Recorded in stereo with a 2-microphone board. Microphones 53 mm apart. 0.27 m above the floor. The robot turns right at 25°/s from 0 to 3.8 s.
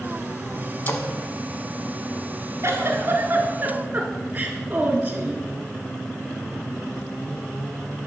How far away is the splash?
About 0.9 m.